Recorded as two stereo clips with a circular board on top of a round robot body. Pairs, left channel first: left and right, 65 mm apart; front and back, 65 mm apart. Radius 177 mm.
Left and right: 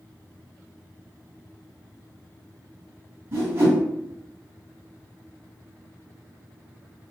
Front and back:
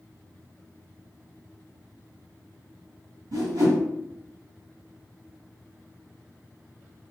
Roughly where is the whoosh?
Behind right.